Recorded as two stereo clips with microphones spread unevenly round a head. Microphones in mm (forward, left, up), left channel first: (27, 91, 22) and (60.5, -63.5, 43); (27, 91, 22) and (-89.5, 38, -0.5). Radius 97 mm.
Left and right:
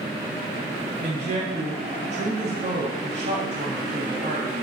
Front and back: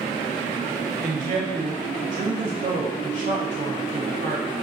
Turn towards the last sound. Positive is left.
turn(degrees=-125)